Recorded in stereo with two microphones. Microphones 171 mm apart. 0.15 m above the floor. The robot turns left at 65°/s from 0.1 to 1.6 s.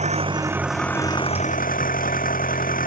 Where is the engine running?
140° right; by 2.9 s 125° left.